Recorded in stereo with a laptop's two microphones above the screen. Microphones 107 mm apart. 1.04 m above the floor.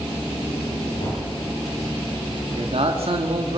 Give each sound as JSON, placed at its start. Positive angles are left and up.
{"t": 1.0, "sound": "tapping", "side_deg": 80, "distance_m": 9.5}
{"t": 2.5, "sound": "a man speaking", "side_deg": -65, "distance_m": 2.0}